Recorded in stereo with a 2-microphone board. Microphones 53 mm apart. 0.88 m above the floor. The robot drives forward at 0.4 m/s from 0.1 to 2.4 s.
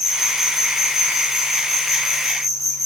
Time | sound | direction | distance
0.0 | an insect | 10° right (ahead or behind) | 2.0 m